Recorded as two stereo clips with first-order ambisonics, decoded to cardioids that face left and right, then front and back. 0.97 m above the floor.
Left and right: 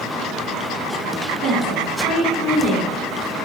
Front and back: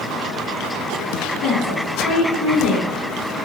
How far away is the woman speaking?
About 1.2 m.